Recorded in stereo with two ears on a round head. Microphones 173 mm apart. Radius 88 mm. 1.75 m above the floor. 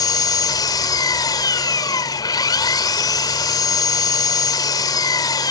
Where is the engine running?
20° left (ahead or behind).